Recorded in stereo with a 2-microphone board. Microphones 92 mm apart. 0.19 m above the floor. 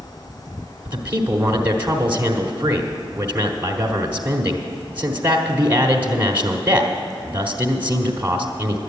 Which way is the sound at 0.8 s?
20° right (ahead or behind).